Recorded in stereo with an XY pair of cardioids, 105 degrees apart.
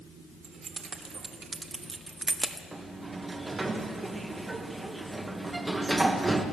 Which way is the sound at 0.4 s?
55° right.